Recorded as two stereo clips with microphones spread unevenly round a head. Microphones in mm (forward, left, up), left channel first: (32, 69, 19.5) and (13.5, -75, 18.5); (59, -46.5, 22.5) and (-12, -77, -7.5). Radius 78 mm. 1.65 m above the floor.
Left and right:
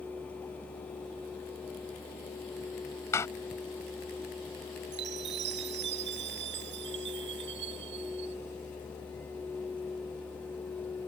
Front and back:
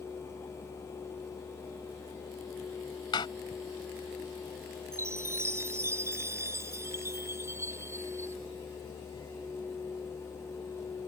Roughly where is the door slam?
Ahead.